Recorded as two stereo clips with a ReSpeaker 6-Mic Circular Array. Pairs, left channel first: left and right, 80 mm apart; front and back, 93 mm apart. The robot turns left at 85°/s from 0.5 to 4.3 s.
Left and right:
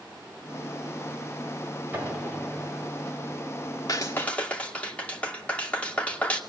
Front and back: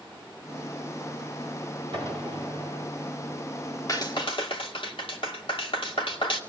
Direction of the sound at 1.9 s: 155° right.